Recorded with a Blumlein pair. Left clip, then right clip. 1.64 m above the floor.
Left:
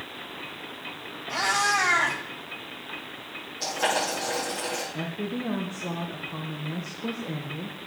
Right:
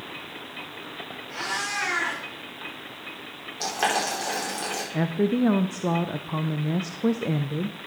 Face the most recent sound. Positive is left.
turn(degrees=-65)